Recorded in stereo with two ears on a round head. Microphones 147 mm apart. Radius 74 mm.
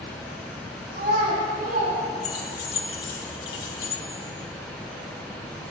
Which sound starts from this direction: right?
A child speaking, at 0.9 s.